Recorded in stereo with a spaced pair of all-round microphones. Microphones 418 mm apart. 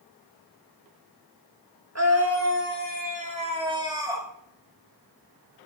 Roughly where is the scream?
Right.